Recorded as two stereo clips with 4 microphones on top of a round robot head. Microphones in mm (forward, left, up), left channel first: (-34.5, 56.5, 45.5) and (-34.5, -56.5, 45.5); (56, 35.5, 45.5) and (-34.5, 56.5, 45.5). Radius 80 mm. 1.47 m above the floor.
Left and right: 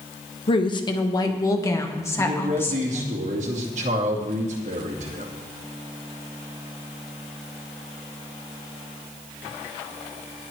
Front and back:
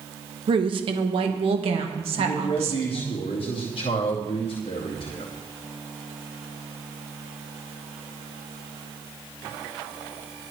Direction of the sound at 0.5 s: 135° left.